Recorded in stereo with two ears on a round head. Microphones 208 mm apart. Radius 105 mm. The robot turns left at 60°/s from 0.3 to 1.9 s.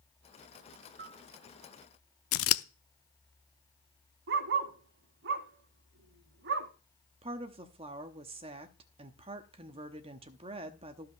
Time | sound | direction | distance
1.0 | a bell | 40° right (ahead or behind) | 1.2 m
2.3 | scissors | 65° left (ahead or behind) | 0.5 m
4.3 | a dog barking | 55° right (ahead or behind) | 1.5 m
7.2 | a woman speaking | 25° right (ahead or behind) | 1.0 m